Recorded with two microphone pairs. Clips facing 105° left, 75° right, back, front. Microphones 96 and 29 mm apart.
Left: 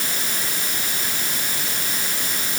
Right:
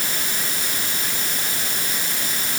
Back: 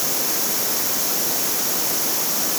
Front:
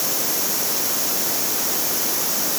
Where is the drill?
I don't hear a drill.